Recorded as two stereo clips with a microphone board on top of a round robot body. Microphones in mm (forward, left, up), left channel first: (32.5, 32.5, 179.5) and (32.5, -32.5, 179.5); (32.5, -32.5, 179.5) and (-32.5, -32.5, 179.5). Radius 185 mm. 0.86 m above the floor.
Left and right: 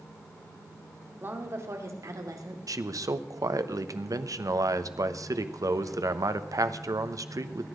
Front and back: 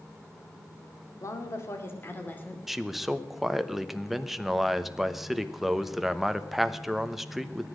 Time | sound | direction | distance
1.2 | a woman speaking | 35° right | 2.5 m
2.7 | a man speaking | 95° right | 1.2 m